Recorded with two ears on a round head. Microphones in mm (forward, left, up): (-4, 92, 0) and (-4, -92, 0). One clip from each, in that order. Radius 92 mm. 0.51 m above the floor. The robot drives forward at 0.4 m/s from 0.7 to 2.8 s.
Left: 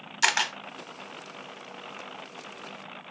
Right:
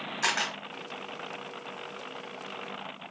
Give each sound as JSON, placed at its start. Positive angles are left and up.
{"t": 0.2, "sound": "a camera shutter", "side_deg": 75, "distance_m": 0.5}